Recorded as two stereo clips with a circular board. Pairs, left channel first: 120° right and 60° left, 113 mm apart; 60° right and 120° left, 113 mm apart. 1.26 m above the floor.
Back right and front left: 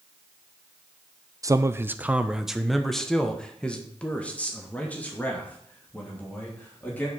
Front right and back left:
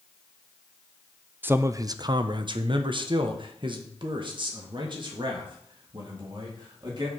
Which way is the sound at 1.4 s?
65° left.